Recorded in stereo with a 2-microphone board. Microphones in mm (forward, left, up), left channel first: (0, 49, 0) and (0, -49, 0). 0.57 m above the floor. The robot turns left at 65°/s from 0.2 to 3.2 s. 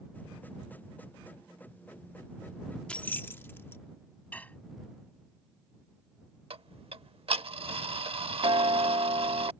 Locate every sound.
2.9 s keys jangling: 10° left (ahead or behind); by 3.8 s 25° left (ahead or behind)
4.3 s dishes clattering: 15° left (ahead or behind)
6.5 s ticking: 70° right (ahead or behind)